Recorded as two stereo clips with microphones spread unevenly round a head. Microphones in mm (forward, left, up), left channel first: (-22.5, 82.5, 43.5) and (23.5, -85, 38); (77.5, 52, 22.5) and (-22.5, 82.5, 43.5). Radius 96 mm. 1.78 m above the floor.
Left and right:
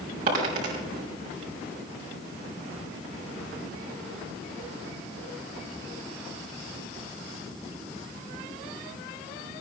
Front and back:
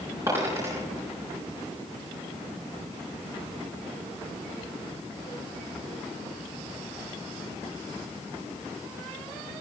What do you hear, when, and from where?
0.3 s a dropped coin: 125° right, 5 m